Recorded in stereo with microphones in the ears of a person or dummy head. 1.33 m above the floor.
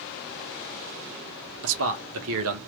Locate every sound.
1.6 s a man speaking: 75° right (ahead or behind), 0.9 m